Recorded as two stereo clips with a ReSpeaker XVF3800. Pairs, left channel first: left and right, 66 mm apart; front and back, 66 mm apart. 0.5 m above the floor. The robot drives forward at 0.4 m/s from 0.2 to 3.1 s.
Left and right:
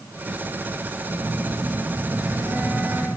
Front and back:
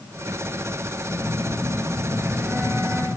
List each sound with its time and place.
1.1 s a phone buzzing: 105° right, 2 m; by 3.1 s 130° right, 2.5 m